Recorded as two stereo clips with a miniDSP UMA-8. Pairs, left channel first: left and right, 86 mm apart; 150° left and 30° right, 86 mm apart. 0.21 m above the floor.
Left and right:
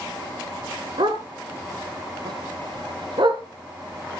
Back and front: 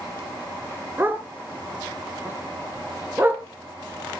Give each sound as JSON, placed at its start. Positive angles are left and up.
{"t": 1.0, "sound": "a dog barking", "azimuth_deg": -95, "distance_m": 1.3}